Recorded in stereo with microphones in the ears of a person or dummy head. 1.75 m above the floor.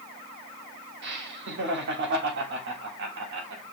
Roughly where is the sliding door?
No sliding door in this recording.